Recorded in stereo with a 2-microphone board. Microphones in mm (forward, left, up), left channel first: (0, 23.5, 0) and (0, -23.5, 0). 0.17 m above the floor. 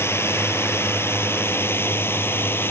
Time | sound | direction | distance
0.0 | a drone | 55° left (ahead or behind) | ?